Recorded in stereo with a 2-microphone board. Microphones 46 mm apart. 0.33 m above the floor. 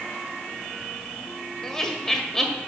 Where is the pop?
I don't hear a pop.